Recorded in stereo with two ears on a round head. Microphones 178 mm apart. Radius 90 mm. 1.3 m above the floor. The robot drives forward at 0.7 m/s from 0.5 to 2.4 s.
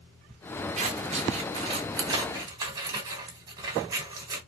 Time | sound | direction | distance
0.8 | scissors | 35° right (ahead or behind) | 1.1 m